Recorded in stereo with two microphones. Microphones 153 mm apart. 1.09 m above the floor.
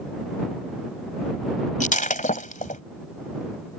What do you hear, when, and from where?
1.8 s breaking glass: 60° left (ahead or behind)